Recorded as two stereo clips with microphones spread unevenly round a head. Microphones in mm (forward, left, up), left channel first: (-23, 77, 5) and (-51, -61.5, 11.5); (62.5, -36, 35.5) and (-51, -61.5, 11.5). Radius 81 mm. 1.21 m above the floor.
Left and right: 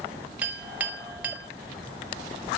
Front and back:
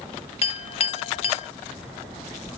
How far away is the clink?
About 0.9 m.